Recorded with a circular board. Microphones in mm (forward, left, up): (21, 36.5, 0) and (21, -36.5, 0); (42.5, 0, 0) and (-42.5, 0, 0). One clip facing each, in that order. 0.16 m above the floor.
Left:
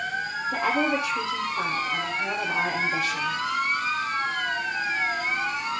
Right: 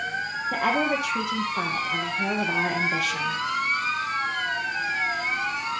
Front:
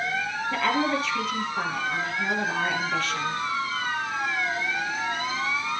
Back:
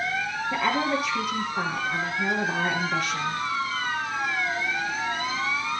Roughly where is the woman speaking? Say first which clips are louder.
Even, even; right.